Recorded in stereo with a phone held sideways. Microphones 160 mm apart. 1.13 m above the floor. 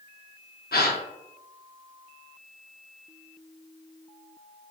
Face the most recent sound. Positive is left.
turn(degrees=80)